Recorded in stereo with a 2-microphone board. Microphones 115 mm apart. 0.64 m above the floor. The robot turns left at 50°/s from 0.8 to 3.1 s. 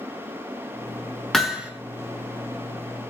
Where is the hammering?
5° left (ahead or behind), 2.0 m; by 1.7 s 15° right (ahead or behind), 2.0 m.